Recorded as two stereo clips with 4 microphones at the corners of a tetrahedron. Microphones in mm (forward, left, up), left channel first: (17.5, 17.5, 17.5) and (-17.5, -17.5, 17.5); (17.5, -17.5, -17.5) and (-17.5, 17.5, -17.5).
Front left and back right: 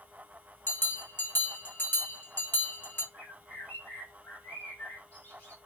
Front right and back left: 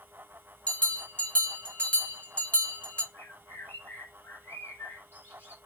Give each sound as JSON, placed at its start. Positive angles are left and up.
{"t": 0.7, "sound": "a bell", "azimuth_deg": 10, "distance_m": 1.2}
{"t": 3.1, "sound": "a bird", "azimuth_deg": -10, "distance_m": 1.2}